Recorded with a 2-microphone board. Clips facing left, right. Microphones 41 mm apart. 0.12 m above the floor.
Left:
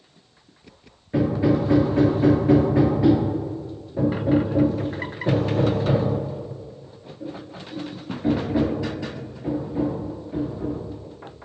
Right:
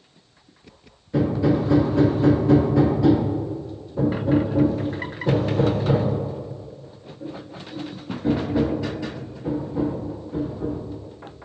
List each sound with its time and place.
1.1 s hammering: 30° left (ahead or behind), 2.0 m